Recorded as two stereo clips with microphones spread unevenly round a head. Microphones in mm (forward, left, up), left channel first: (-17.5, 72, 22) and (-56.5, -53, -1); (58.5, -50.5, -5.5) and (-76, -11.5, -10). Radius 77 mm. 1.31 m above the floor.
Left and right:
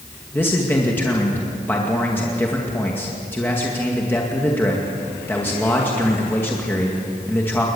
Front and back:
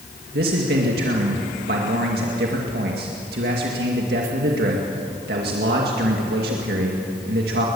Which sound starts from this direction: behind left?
A man speaking, at 0.3 s.